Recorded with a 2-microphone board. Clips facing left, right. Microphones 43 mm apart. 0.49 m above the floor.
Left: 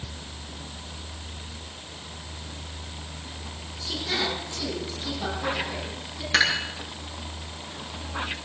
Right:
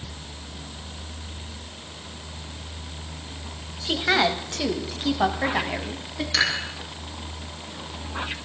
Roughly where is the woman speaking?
Right.